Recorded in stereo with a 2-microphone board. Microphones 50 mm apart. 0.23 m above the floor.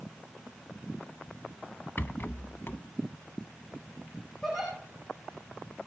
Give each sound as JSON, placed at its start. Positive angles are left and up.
{"t": 2.0, "sound": "a rattle", "side_deg": 45, "distance_m": 0.6}
{"t": 4.4, "sound": "a giggle", "side_deg": 5, "distance_m": 7.5}